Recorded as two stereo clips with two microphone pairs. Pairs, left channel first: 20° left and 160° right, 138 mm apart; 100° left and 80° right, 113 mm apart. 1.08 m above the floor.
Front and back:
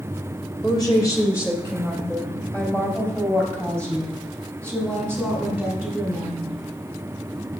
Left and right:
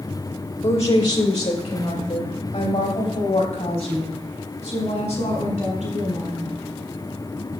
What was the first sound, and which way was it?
A woman speaking, 80° left.